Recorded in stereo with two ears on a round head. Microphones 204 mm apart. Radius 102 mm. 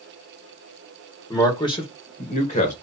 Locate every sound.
1.3 s a man speaking: 15° left (ahead or behind), 1.5 m; by 2.7 s 35° left (ahead or behind), 1.7 m